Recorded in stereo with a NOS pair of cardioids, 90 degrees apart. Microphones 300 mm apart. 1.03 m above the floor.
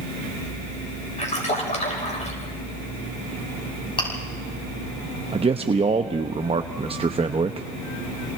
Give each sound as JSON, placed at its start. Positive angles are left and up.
{"t": 1.2, "sound": "a splash", "azimuth_deg": 25, "distance_m": 5.5}
{"t": 4.0, "sound": "chewing", "azimuth_deg": 15, "distance_m": 7.0}
{"t": 5.3, "sound": "a man speaking", "azimuth_deg": -20, "distance_m": 0.8}